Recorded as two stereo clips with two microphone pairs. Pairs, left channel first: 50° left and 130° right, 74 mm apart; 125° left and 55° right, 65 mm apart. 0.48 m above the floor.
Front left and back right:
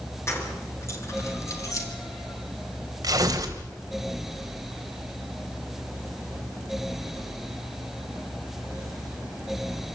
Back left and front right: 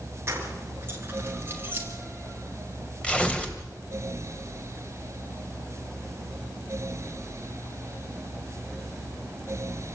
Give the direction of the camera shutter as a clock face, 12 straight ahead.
No camera shutter in this recording.